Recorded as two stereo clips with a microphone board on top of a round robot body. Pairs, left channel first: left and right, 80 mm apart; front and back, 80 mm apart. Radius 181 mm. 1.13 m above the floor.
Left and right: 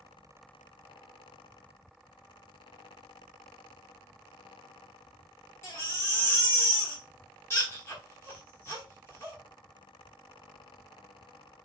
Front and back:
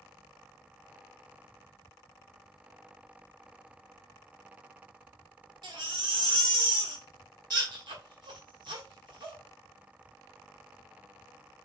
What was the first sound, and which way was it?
A baby crying, 150° left.